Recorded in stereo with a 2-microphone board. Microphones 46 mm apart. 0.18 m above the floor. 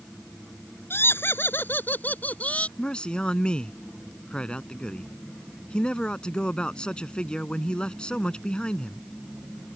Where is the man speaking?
20° left (ahead or behind).